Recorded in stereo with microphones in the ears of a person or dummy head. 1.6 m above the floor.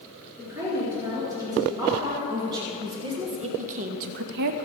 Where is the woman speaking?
15° right (ahead or behind), 4 m; by 4.6 s 40° right (ahead or behind), 0.6 m.